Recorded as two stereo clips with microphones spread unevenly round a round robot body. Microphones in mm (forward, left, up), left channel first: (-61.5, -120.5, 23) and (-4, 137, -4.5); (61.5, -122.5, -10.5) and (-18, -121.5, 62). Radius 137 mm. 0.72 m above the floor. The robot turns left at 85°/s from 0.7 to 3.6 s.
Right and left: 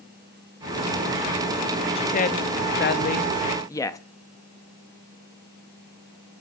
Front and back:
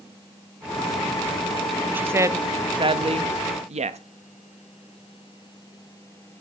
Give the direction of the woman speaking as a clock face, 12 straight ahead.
1 o'clock.